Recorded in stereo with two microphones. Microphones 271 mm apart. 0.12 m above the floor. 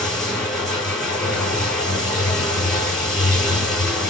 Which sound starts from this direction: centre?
Running water, at 0.0 s.